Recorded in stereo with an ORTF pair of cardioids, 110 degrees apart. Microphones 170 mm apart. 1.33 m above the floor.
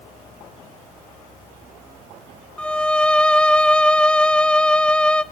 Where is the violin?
5° left, 0.7 m.